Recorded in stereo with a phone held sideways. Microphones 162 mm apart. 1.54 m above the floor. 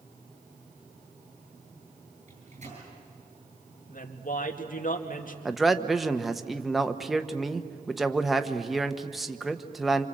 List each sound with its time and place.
2.3 s a microwave: 50° right (ahead or behind), 10 m
3.9 s a woman speaking: 60° left (ahead or behind), 2 m
5.5 s a man speaking: centre (ahead or behind), 1.1 m